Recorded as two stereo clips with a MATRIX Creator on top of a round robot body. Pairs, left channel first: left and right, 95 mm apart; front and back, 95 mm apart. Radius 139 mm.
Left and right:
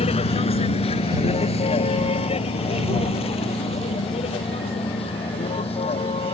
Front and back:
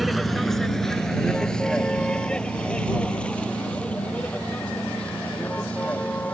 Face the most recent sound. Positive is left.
turn(degrees=75)